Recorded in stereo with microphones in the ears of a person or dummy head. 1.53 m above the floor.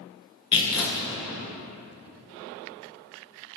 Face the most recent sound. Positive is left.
turn(degrees=30)  # may be behind; listen again after turning